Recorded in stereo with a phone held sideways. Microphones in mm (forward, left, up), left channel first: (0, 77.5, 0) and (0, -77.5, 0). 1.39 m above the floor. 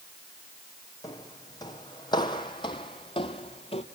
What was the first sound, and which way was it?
Footsteps, 25° left (ahead or behind).